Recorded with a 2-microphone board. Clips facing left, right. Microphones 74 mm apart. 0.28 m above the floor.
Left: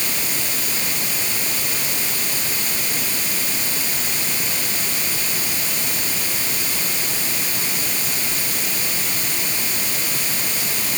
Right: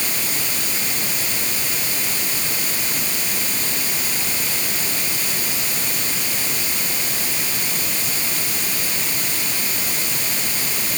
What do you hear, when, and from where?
Only background noise.